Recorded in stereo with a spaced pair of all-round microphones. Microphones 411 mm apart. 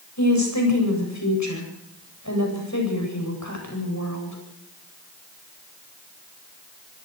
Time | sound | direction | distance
0.2 | a woman speaking | 45° left (ahead or behind) | 8.5 m